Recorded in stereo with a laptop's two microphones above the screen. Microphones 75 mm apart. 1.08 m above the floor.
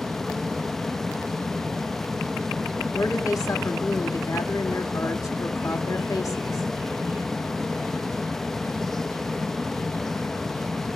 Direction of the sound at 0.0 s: 5° left (ahead or behind).